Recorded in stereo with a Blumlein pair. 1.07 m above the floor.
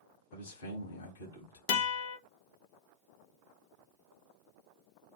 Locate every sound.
0.3 s a man speaking: 70° left, 1.4 m
1.7 s a guitar: 45° left, 0.8 m